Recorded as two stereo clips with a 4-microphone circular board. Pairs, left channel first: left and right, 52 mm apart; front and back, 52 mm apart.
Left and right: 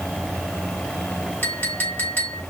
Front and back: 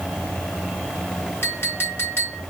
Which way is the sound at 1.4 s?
45° left.